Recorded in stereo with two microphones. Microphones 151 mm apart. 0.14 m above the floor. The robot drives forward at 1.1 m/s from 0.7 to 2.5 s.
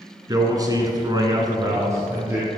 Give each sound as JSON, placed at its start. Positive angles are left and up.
{"t": 0.3, "sound": "a man speaking", "side_deg": -25, "distance_m": 1.2}